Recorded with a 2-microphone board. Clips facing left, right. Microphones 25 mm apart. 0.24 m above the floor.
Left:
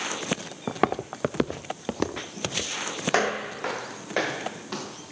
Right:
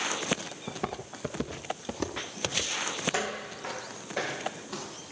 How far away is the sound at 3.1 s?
About 0.7 m.